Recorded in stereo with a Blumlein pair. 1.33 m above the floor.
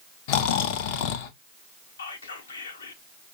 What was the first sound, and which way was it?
Snoring, 45° left.